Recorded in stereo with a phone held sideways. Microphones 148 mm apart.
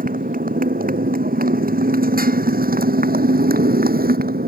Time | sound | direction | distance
0.0 | a motorcycle | 70° right (ahead or behind) | ?